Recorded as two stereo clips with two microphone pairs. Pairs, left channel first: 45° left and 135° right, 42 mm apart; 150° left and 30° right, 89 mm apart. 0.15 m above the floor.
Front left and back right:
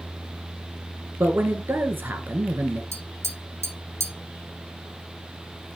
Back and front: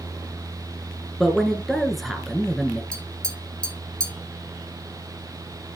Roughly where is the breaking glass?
No breaking glass in this recording.